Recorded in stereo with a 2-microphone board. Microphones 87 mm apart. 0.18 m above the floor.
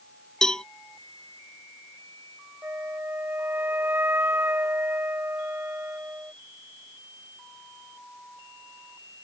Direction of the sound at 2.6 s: 25° right (ahead or behind).